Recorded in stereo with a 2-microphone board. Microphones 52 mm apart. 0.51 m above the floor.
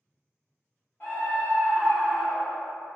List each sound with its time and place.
1.0 s a scream: 35° left (ahead or behind), 0.9 m; by 2.7 s 10° right (ahead or behind), 0.9 m